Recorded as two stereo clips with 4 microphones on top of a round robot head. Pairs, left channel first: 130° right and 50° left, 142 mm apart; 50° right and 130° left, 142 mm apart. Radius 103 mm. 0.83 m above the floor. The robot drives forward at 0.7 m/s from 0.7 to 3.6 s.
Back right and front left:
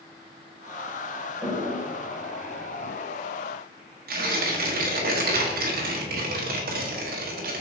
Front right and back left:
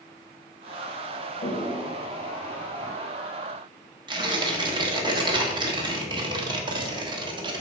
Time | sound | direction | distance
1.4 | a toilet flushing | 25° right | 1.9 m
4.1 | tearing paper | 70° left | 1.2 m